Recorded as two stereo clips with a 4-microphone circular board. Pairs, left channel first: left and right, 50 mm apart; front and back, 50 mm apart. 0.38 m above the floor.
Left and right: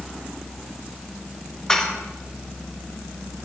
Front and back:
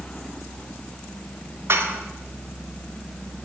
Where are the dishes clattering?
165° left, 0.9 m.